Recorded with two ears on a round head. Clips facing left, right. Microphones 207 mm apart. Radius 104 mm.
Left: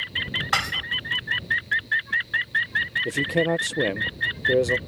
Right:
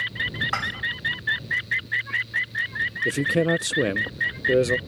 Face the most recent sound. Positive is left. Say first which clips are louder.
# right 1 dB
turn(degrees=-15)  # may be behind; listen again after turning